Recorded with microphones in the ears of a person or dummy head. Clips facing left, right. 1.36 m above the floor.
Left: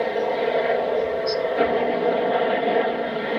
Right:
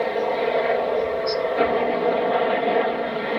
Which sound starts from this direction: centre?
A helicopter, at 0.0 s.